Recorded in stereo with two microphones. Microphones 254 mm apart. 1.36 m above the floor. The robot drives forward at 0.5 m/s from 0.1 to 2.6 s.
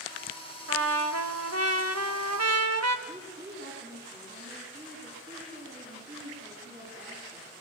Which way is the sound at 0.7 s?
60° right (ahead or behind).